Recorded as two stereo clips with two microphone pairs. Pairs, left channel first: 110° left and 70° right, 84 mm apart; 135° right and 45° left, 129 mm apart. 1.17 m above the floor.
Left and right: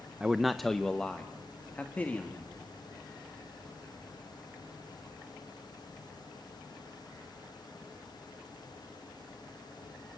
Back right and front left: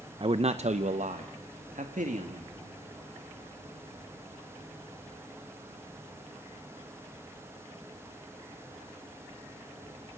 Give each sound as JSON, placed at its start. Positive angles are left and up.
{"t": 0.2, "sound": "a man speaking", "azimuth_deg": 5, "distance_m": 0.6}